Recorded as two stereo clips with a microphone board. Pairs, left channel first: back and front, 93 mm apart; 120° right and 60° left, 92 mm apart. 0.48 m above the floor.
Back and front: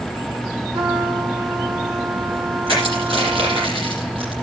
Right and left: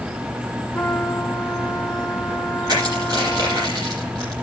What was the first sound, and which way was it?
A trumpet, 35° right.